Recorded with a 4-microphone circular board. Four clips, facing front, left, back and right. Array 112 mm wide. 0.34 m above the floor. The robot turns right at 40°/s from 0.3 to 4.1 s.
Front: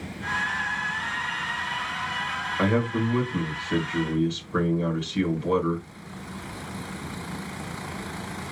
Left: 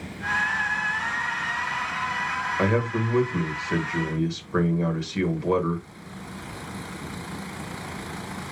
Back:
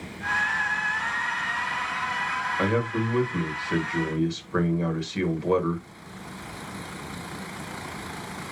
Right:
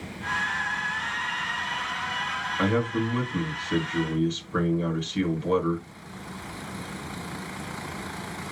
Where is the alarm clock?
No alarm clock in this recording.